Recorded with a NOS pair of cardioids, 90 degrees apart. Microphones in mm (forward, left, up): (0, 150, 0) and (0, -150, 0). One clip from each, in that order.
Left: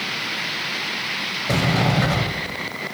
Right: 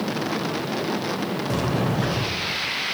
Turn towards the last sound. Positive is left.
turn(degrees=35)